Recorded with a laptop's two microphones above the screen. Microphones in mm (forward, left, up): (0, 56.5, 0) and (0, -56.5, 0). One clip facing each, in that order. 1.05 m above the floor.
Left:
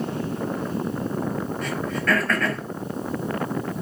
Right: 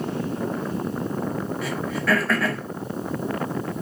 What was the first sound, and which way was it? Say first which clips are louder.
Throat clearing: even; 5° right (ahead or behind).